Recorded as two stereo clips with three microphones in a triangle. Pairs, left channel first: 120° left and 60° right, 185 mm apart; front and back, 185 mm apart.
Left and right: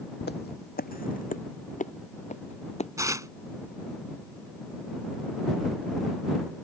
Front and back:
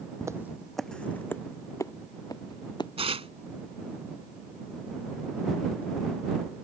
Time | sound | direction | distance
0.2 | footsteps | 110° left | ?
3.0 | tearing paper | 130° right | ?